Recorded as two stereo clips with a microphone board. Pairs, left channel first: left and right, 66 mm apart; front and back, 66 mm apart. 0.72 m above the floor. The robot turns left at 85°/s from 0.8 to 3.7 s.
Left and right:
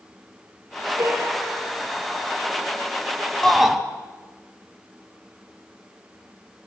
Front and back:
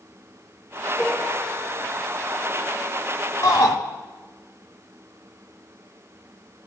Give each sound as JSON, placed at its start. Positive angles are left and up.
{"t": 1.0, "sound": "a piano", "azimuth_deg": -45, "distance_m": 7.5}
{"t": 3.4, "sound": "a shout", "azimuth_deg": 10, "distance_m": 1.9}